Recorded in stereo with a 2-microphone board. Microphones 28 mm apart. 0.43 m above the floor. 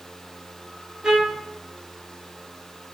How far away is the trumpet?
About 1.1 m.